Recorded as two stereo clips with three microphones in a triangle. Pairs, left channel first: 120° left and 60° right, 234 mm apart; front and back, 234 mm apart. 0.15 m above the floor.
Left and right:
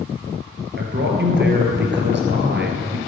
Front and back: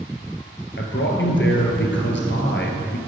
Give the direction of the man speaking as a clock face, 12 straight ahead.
1 o'clock.